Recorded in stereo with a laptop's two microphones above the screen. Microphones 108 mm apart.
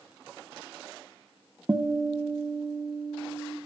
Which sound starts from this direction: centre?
A guitar, at 1.7 s.